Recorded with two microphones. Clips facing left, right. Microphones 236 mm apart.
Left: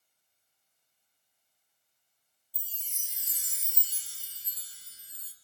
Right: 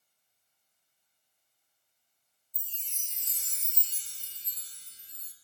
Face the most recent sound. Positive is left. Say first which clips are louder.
# even
turn(degrees=10)  # may be behind; listen again after turning